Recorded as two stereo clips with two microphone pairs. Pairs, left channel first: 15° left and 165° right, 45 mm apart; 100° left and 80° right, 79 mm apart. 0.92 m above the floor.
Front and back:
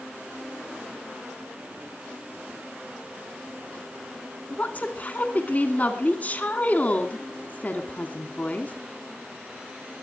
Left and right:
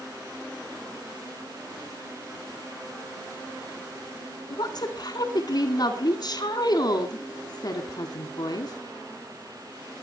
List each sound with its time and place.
4.5 s a woman speaking: 70° left, 2.5 m